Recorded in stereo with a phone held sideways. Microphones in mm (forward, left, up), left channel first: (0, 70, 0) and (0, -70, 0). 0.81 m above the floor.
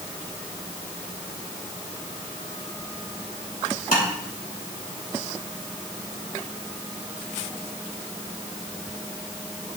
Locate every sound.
3.9 s tapping: 80° left, 2.5 m